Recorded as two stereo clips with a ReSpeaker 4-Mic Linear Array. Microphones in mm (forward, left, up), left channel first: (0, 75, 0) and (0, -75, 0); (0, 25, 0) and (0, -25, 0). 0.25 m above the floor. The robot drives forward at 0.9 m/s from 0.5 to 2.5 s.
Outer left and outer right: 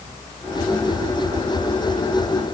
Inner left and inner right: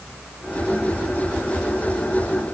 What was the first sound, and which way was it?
Only background noise.